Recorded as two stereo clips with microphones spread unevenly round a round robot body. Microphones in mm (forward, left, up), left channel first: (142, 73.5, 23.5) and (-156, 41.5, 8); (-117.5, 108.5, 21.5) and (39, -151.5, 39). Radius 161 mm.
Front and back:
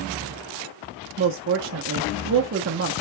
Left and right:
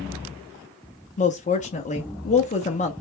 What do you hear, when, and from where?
1.2 s a woman speaking: 175° left, 0.8 m